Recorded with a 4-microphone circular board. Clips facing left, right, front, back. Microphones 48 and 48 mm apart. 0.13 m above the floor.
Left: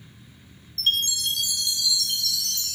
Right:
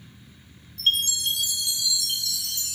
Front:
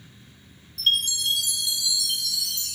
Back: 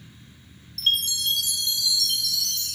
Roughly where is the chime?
Ahead right.